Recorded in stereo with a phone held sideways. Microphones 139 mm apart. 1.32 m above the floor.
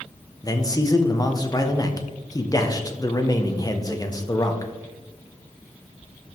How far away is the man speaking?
About 1.2 m.